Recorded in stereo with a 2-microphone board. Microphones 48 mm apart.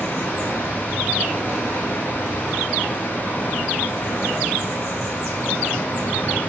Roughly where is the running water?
Left.